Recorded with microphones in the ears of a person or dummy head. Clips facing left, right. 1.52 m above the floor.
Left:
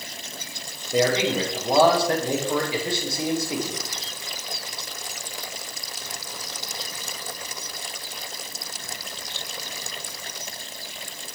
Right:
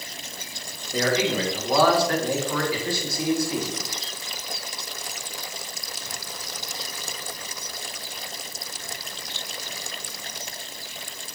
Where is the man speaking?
25° left (ahead or behind), 1.3 m.